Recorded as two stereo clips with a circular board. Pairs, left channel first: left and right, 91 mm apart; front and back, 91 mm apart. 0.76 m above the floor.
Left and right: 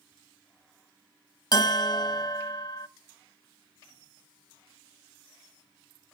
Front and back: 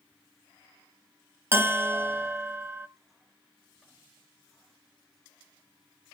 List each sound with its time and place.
1.5 s a bell: 120° left, 0.8 m